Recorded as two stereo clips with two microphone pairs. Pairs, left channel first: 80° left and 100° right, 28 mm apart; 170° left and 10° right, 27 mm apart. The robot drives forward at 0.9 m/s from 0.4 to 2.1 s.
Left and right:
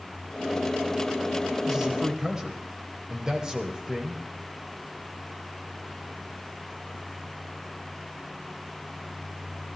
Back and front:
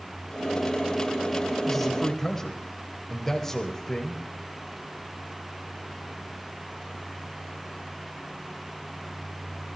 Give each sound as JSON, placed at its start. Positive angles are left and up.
{"t": 1.6, "sound": "a man speaking", "azimuth_deg": -105, "distance_m": 1.3}